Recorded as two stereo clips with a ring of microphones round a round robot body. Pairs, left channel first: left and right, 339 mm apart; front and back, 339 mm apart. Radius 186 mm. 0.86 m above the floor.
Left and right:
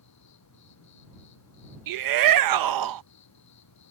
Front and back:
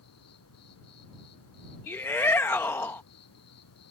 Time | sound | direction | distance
0.0 | an insect | 45° left | ?
1.9 | a shout | 85° right | ?